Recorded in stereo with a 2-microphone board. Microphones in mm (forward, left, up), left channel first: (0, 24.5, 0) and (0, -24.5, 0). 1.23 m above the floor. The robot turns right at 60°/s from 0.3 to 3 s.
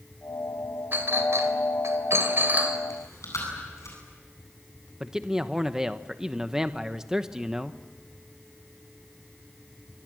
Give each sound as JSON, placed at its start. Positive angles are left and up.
{"t": 0.9, "sound": "a clink", "side_deg": -45, "distance_m": 3.0}
{"t": 2.9, "sound": "chewing", "side_deg": 75, "distance_m": 9.5}
{"t": 5.0, "sound": "a man speaking", "side_deg": -10, "distance_m": 0.9}